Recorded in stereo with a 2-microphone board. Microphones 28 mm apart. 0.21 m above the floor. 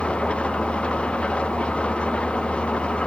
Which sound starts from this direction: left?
An engine running, at 0.0 s.